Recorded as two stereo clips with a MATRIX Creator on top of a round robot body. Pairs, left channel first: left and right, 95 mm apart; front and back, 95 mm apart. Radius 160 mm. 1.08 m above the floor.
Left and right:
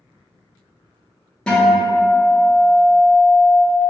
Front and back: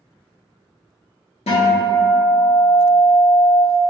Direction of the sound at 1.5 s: 10° left.